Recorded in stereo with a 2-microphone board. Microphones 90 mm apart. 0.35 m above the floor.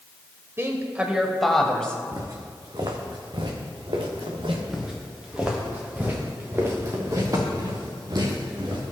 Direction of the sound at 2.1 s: 35° right (ahead or behind).